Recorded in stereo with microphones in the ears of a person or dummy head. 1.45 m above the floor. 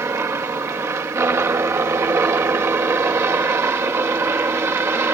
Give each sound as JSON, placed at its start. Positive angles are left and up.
{"t": 0.0, "sound": "a helicopter", "side_deg": -15}